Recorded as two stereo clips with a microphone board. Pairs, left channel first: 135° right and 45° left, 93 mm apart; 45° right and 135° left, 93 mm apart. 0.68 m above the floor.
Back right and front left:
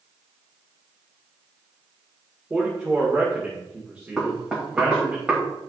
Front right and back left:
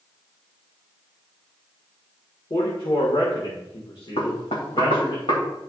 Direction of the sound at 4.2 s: 40° right.